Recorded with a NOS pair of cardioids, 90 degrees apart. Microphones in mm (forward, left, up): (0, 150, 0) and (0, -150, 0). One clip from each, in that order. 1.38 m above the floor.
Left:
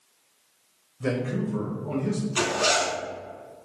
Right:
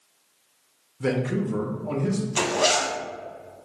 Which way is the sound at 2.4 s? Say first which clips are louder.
Right 1 dB; 10° right.